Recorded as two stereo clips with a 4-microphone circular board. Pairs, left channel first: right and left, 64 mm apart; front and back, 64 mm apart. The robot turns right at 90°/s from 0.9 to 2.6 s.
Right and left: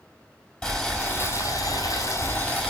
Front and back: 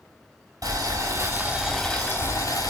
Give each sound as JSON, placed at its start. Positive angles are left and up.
{"t": 0.6, "sound": "boiling", "azimuth_deg": -170, "distance_m": 4.5}